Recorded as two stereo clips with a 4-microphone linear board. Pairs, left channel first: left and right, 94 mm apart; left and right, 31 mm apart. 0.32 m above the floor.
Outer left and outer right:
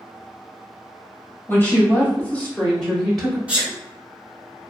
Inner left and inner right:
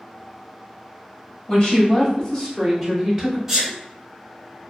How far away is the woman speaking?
About 1.2 m.